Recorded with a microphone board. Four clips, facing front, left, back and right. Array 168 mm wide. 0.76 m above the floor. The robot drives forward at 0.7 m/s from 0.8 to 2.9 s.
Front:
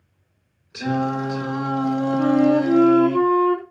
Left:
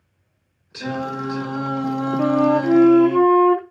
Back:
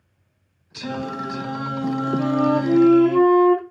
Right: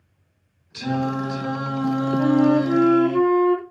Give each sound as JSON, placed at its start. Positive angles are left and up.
{"t": 0.7, "sound": "singing", "azimuth_deg": 40, "distance_m": 3.0}
{"t": 2.2, "sound": "a flute", "azimuth_deg": 85, "distance_m": 0.7}